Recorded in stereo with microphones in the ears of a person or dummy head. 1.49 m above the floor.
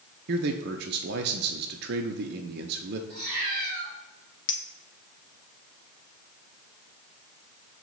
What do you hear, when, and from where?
0.3 s a man speaking: 55° right (ahead or behind), 0.6 m
3.1 s a cat meowing: 55° right (ahead or behind), 2.5 m
4.5 s a clink: 30° left (ahead or behind), 0.7 m